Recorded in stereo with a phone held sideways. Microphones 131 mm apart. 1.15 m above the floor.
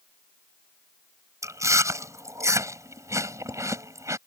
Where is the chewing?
25° right (ahead or behind).